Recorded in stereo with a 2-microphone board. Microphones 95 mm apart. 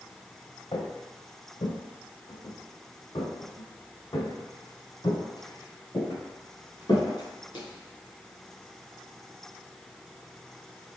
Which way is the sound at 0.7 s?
65° left (ahead or behind).